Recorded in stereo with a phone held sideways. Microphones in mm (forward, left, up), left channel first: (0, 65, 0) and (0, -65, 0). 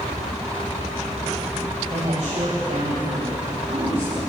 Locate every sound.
1.9 s a woman speaking: 45° right (ahead or behind), 9 m